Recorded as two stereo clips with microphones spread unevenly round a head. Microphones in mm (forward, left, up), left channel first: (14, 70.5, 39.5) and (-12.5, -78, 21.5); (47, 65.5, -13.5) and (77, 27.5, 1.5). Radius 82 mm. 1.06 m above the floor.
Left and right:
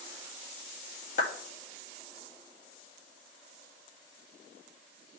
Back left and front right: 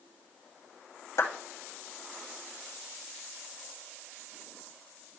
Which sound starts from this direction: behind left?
A clap, at 1.2 s.